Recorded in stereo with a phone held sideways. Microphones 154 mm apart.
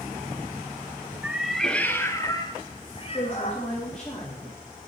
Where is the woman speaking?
5° left (ahead or behind), 3.5 m.